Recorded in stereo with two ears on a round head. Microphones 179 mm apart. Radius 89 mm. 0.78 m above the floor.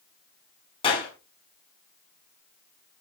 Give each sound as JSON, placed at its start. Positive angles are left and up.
{"t": 0.8, "sound": "a clap", "side_deg": 25, "distance_m": 5.5}